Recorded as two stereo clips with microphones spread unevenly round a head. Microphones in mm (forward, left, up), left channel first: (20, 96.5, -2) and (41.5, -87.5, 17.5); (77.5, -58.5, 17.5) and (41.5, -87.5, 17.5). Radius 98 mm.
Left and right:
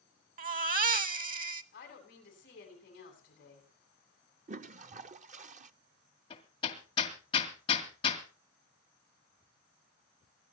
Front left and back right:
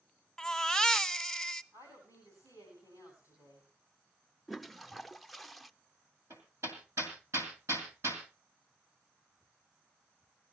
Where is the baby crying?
45° right, 1.2 m.